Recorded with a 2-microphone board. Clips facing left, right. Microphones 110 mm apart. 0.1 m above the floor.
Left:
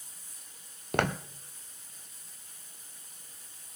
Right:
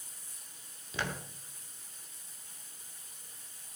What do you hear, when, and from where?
0.9 s footsteps: 60° left (ahead or behind), 1.1 m